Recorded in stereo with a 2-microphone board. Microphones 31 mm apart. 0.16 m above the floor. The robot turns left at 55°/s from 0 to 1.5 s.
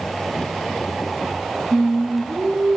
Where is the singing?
65° right (ahead or behind), 2 m.